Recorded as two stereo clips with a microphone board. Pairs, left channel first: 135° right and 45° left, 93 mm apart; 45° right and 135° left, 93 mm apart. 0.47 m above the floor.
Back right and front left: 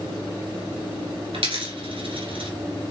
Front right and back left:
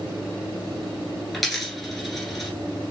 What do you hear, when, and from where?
1.3 s a dropped coin: 45° left, 1.4 m